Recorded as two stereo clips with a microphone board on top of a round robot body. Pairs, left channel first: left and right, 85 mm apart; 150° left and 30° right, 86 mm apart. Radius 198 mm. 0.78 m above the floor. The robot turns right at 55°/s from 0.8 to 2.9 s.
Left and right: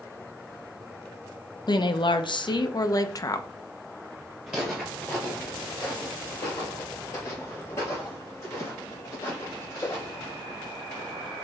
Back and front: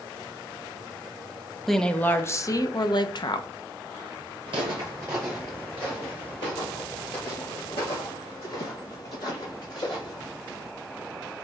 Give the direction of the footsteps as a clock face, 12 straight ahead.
12 o'clock.